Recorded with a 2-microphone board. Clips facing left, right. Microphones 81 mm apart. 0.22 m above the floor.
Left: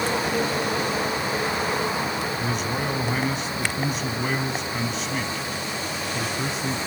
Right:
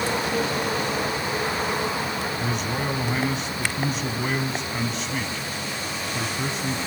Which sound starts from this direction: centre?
A man speaking, at 2.4 s.